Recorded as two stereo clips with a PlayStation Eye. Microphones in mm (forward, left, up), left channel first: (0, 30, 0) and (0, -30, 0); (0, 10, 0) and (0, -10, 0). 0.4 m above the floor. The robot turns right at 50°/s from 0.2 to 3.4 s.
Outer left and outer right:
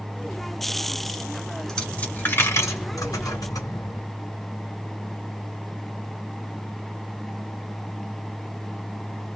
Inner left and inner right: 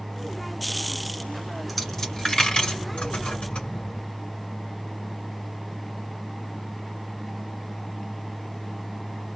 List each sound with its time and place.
1.7 s a dropped coin: 10° left (ahead or behind), 1.8 m; by 4.0 s 80° left, 1.8 m